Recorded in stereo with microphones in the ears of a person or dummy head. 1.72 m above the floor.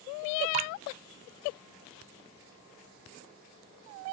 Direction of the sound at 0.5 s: 35° right (ahead or behind).